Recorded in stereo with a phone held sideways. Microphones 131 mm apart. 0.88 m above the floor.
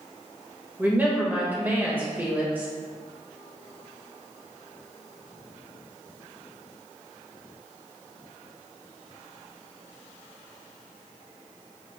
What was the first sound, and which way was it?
A woman speaking, 10° right (ahead or behind).